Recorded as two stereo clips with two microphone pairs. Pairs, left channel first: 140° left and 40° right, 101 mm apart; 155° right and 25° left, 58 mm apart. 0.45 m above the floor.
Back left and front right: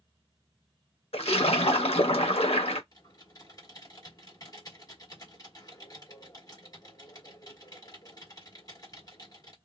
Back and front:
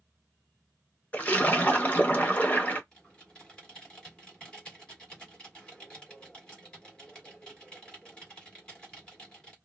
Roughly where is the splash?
Behind left.